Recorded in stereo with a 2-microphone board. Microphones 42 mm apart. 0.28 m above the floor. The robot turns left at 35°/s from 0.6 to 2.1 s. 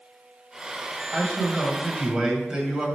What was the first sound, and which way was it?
A man speaking, 10° left.